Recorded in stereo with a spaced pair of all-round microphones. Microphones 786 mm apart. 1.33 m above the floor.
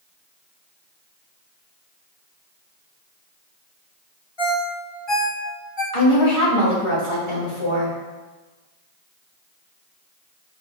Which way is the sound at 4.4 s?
35° left (ahead or behind).